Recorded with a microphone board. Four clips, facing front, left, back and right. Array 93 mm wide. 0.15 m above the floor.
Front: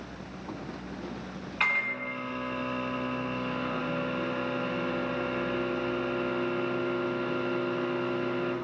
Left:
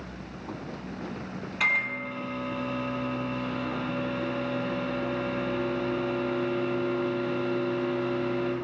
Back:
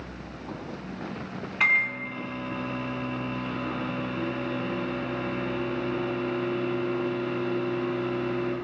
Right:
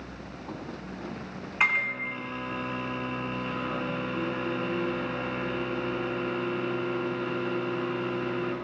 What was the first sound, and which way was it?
A microwave, 95° right.